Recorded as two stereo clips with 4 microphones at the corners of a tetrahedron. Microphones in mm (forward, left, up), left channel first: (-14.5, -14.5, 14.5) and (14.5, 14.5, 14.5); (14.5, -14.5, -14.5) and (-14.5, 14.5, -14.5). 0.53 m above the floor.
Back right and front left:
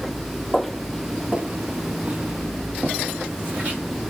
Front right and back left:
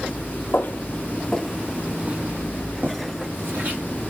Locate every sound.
0.5 s footsteps: 50° right, 0.9 m; by 3.8 s 100° left, 2.5 m